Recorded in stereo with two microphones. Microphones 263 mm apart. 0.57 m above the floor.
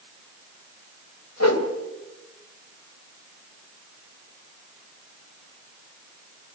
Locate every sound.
1.4 s a whoosh: 75° left (ahead or behind), 1.9 m